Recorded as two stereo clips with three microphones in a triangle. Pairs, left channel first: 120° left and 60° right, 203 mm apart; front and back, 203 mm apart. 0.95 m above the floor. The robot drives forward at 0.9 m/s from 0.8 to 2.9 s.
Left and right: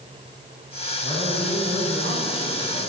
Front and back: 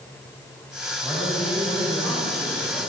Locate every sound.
1.0 s a man speaking: 100° right, 6 m; by 2.8 s 115° right, 6.5 m